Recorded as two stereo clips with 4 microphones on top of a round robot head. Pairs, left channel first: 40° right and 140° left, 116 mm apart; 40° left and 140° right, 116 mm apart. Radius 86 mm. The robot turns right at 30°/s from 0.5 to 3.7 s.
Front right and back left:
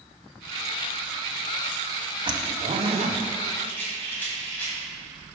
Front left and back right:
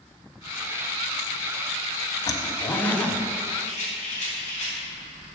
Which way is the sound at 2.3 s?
95° left.